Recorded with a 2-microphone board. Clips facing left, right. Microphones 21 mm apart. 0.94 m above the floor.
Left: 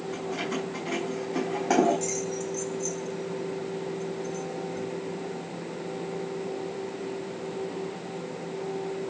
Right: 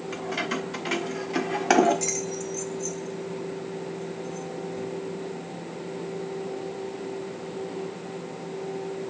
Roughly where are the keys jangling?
Right.